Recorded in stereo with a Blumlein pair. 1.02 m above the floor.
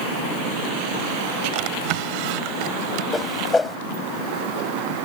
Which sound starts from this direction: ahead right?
A drawer, at 1.5 s.